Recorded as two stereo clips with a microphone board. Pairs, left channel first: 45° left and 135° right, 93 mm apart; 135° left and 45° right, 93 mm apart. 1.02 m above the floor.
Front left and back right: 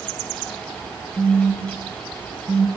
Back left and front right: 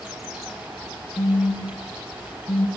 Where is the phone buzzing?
125° left, 0.9 m.